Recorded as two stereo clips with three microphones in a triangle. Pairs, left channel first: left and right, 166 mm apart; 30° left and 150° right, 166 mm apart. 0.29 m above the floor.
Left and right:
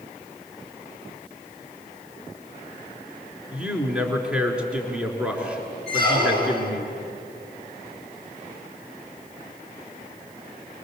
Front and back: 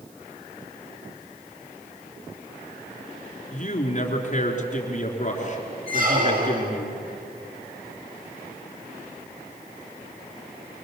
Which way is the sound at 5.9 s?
115° right.